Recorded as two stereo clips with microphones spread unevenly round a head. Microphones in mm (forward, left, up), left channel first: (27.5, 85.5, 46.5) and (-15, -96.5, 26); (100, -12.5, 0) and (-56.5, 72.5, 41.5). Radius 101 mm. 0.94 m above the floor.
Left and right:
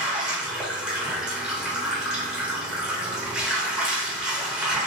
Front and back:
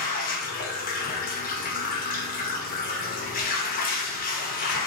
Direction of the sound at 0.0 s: 20° right.